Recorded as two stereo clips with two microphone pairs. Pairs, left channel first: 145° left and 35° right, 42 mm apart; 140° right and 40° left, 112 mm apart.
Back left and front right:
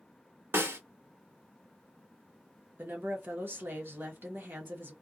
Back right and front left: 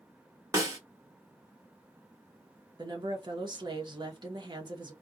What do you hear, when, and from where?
0.5 s a snare drum: 15° right, 1.0 m
2.8 s a woman speaking: straight ahead, 0.9 m